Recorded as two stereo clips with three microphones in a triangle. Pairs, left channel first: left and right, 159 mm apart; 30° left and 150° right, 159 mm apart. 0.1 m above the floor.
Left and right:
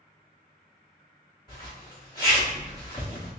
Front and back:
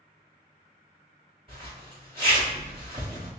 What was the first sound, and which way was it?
A zipper, 155° left.